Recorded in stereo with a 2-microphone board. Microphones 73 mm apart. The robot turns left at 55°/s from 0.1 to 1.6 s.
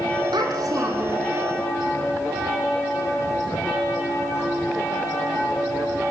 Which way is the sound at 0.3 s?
100° right.